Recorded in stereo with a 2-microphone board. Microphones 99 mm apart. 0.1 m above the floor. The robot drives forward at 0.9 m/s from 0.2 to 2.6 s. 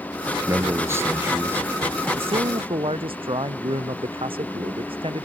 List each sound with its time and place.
0.5 s a man speaking: 30° right (ahead or behind); by 1.7 s 20° right (ahead or behind)
2.2 s a man speaking: 70° right (ahead or behind); by 5.3 s 65° right (ahead or behind)